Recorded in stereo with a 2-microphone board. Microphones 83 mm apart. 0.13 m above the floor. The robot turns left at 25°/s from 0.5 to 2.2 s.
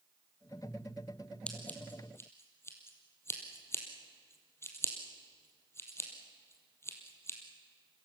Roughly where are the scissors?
Centre.